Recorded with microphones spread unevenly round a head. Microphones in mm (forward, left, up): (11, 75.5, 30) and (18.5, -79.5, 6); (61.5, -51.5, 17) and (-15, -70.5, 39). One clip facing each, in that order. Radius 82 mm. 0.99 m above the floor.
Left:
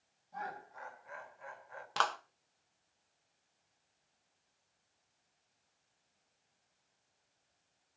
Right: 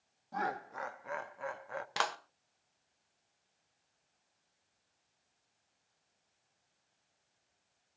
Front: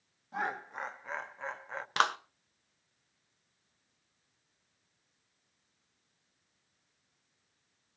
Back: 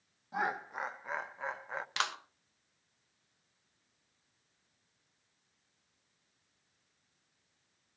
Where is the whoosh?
I don't hear a whoosh.